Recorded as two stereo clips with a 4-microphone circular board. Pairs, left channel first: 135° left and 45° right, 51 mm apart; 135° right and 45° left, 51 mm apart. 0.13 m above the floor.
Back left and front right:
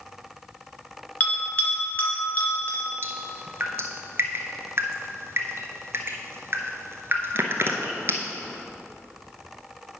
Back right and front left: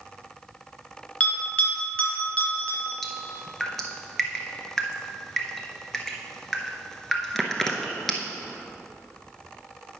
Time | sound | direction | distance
1.2 | a bell | 170° left | 2 m
3.0 | dripping | 50° right | 1.0 m